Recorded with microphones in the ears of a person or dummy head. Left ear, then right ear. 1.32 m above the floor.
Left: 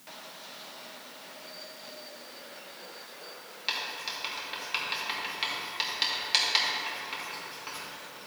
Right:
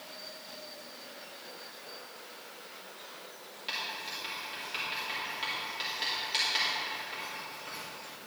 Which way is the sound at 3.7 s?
25° left (ahead or behind).